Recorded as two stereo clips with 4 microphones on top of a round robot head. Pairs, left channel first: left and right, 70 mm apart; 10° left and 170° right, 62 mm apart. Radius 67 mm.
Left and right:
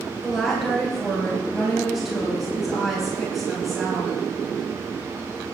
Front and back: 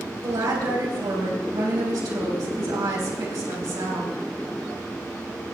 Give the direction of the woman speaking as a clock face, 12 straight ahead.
6 o'clock.